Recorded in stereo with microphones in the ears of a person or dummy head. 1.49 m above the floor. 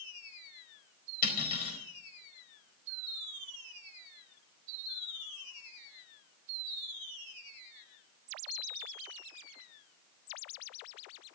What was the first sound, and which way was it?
Cutlery clinking, 55° left (ahead or behind).